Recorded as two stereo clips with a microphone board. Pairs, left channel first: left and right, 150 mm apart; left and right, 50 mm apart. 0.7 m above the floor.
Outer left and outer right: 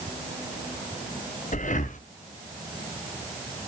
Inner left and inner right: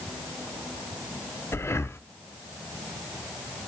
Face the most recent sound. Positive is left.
turn(degrees=60)  # may be behind; listen again after turning